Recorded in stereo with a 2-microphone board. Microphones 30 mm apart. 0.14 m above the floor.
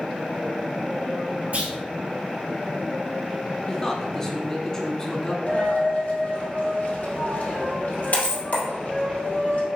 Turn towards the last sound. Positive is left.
turn(degrees=65)  # may be behind; listen again after turning